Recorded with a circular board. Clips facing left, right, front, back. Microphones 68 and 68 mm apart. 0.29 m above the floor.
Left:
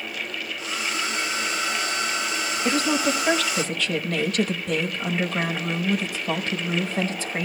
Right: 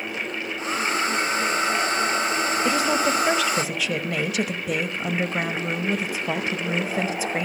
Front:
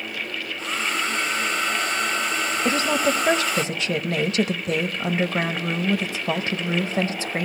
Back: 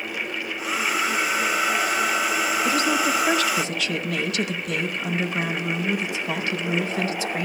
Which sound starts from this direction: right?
A hair dryer, at 0.6 s.